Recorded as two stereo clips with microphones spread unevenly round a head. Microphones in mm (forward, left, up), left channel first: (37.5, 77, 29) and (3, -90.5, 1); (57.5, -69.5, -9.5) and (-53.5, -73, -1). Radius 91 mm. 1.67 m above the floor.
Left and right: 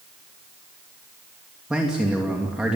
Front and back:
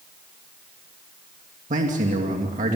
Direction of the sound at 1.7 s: 170° left.